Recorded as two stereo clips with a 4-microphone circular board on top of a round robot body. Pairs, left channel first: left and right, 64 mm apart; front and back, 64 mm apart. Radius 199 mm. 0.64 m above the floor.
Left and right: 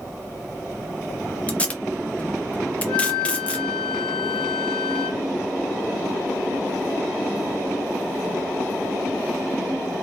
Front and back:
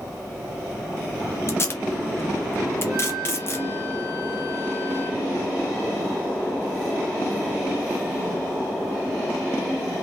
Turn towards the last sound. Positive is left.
turn(degrees=105)